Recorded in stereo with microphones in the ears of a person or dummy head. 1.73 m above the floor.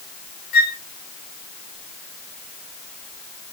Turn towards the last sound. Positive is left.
turn(degrees=55)  # may be behind; listen again after turning